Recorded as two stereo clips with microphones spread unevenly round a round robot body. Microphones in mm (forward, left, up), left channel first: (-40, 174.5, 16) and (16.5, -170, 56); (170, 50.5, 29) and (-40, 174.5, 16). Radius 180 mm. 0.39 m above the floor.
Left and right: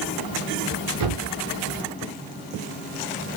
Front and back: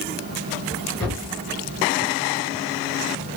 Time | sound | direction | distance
1.0 | a thud | 120° right | 4.5 m